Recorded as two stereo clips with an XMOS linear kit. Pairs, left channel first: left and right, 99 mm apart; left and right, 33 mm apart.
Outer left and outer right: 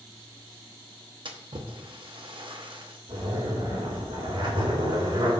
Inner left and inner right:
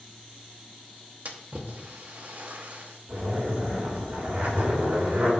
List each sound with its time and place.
1.2 s a splash: 55° right (ahead or behind), 0.9 m
3.1 s a zipper: 65° right (ahead or behind), 3 m